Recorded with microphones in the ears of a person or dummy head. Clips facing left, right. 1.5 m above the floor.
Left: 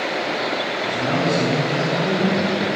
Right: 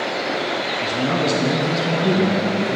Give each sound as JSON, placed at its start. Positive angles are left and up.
{"t": 0.8, "sound": "a man speaking", "side_deg": -45, "distance_m": 1.8}